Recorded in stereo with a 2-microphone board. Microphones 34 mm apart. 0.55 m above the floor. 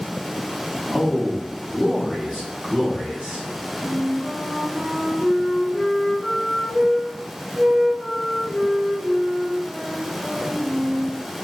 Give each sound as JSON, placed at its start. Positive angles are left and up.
{"t": 0.9, "sound": "a man speaking", "side_deg": 25, "distance_m": 1.1}
{"t": 3.8, "sound": "a flute", "side_deg": -15, "distance_m": 1.6}